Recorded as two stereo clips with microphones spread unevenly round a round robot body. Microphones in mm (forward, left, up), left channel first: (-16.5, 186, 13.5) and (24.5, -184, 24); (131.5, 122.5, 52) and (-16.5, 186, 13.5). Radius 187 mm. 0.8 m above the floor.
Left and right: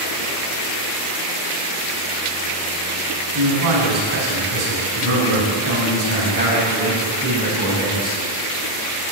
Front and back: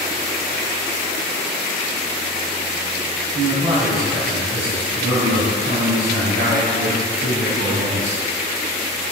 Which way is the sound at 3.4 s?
130° right.